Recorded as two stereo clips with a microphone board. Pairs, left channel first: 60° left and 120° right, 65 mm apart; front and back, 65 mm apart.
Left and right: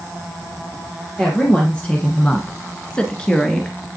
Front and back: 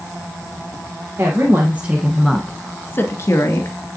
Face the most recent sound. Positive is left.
turn(degrees=-20)